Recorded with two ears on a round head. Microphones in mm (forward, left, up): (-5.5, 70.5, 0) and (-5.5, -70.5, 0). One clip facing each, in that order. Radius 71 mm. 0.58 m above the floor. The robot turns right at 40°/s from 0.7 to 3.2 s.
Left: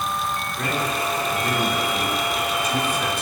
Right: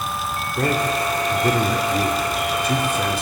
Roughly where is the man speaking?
Right.